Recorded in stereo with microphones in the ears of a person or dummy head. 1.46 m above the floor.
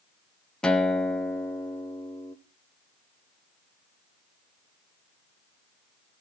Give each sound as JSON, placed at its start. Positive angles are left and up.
{"t": 0.6, "sound": "a guitar", "side_deg": 10, "distance_m": 0.6}